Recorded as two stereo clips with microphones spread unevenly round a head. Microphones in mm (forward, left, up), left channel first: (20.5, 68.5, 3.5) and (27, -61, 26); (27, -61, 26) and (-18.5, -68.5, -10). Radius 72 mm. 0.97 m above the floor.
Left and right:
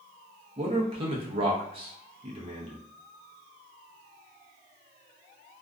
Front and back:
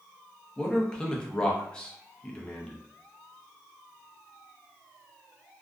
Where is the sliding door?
No sliding door in this recording.